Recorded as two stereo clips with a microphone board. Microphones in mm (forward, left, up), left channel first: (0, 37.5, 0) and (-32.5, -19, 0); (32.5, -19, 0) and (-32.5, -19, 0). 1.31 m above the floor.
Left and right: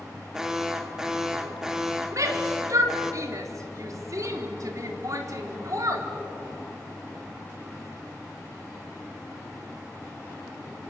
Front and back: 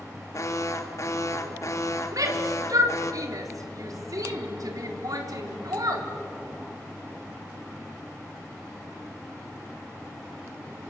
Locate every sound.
0.3 s an alarm: 40° right, 1.8 m
2.1 s a shout: 155° right, 3.5 m